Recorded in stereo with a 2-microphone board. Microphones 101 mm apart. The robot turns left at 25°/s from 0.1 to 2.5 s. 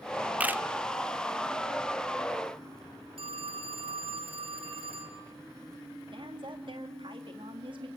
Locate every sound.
0.4 s a camera shutter: 15° right (ahead or behind), 0.5 m; by 0.6 s 20° right (ahead or behind), 0.5 m
3.2 s a phone ringing: 65° right (ahead or behind), 1.6 m
6.1 s a woman speaking: 55° right (ahead or behind), 2 m